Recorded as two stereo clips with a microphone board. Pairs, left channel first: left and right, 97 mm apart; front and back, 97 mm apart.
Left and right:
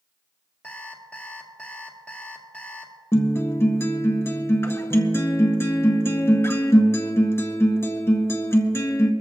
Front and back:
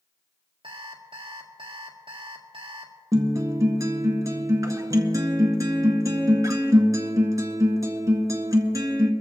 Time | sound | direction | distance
0.6 | an alarm clock | 165° left | 1.8 m
3.1 | a guitar | 140° left | 1.6 m